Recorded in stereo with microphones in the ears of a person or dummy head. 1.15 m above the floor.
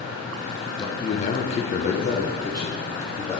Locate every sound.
0.8 s a man speaking: 30° left (ahead or behind), 0.8 m; by 3.4 s 10° left (ahead or behind), 1.6 m